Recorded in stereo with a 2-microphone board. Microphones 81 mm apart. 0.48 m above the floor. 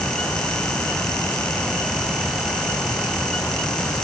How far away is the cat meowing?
No cat meowing in this recording.